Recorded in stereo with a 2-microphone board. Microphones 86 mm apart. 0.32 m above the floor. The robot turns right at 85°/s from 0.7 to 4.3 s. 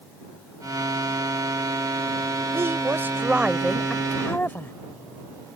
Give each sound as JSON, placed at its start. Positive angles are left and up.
{"t": 2.5, "sound": "a woman speaking", "azimuth_deg": -100}